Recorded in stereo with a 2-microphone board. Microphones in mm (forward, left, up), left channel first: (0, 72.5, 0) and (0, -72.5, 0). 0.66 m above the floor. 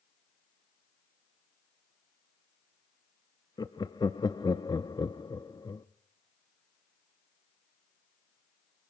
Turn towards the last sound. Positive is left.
turn(degrees=30)  # may be behind; listen again after turning